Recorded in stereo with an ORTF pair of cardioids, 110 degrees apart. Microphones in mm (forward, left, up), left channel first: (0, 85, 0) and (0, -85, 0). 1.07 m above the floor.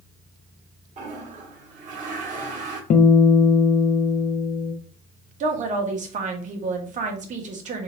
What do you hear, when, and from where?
1.0 s a toilet flushing: 50° right, 1.4 m
2.9 s a guitar: 55° left, 0.8 m
5.4 s a woman speaking: 45° right, 1.3 m